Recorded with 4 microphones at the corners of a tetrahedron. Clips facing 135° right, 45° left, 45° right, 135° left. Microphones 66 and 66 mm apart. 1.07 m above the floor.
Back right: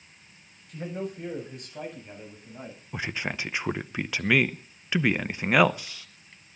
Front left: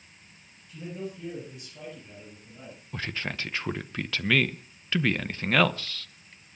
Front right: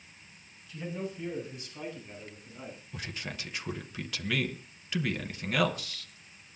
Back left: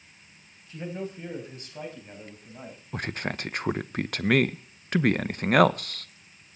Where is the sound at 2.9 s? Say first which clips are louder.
Back right 2 dB, back left 10 dB; 155° left, 0.8 m.